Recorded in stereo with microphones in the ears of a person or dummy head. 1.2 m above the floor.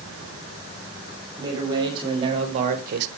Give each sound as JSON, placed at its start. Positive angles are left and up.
{"t": 1.4, "sound": "a man speaking", "side_deg": -20, "distance_m": 3.0}